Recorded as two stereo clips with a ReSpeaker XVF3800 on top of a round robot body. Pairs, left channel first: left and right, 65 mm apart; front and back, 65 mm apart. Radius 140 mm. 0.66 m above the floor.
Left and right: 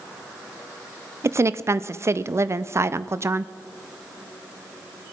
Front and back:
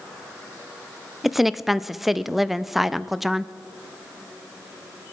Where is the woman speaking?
95° right, 0.6 m.